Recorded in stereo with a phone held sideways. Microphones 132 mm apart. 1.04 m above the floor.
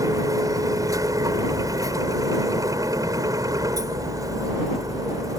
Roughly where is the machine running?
Right.